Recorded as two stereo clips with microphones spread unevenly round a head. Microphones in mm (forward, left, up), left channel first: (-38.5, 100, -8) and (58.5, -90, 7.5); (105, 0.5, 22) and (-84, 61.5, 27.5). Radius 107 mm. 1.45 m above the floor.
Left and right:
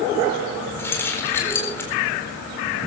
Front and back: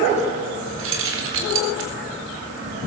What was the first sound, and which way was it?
Keys jangling, 165° right.